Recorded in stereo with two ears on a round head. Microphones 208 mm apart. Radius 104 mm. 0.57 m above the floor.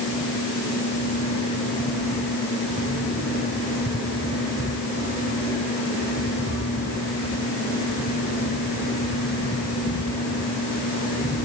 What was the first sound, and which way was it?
Only background noise.